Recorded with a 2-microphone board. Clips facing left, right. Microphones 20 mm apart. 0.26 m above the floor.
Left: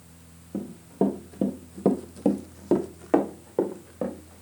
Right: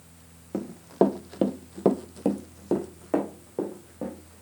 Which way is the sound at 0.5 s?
75° right (ahead or behind).